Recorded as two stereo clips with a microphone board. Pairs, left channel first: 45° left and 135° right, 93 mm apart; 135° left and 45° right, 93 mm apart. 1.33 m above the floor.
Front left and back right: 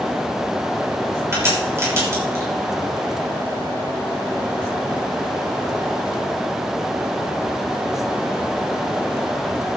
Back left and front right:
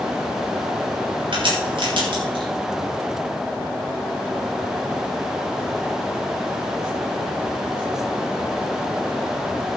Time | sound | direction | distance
1.3 | a crack | 75° right | 6.5 m